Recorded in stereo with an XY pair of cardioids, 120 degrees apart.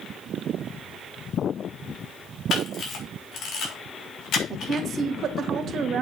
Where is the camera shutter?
55° left, 4 m.